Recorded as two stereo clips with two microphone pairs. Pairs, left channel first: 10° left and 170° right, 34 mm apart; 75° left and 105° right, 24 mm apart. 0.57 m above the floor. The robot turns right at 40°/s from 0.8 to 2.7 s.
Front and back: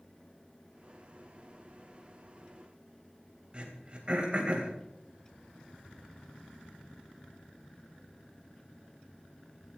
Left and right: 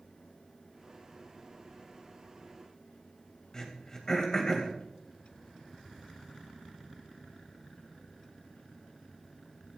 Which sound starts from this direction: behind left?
Throat clearing, at 3.5 s.